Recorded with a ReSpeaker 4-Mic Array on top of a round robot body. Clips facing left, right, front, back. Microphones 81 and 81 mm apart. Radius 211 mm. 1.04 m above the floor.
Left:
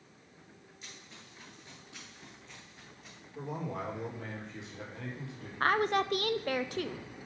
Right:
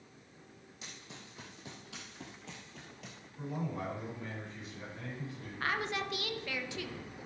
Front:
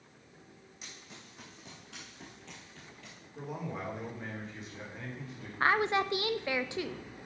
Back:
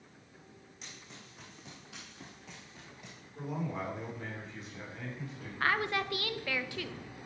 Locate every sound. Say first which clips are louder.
0.8 s running footsteps: right 3 dB, even; 90° right, 3.5 m; by 3.2 s 110° right, 1.7 m
3.4 s a man speaking: left 1 dB, back 2 dB; 90° left, 4.5 m
5.6 s a woman speaking: left 7 dB, front 4 dB; 65° left, 0.8 m